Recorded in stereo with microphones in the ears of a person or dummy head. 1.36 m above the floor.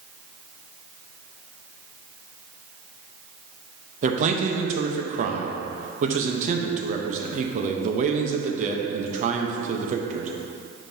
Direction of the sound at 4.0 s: 45° right (ahead or behind).